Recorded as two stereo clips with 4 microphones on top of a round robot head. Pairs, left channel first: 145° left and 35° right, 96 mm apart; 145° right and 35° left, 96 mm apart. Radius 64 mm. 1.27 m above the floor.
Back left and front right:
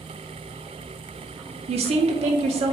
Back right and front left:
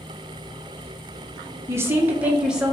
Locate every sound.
1.7 s a woman speaking: 25° right, 1.1 m; by 2.7 s 50° right, 1.3 m